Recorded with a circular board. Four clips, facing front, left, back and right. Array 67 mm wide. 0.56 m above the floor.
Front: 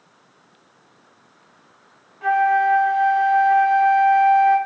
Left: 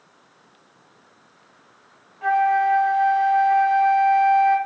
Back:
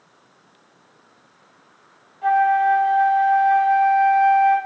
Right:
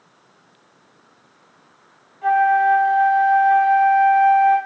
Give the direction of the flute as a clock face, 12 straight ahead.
11 o'clock.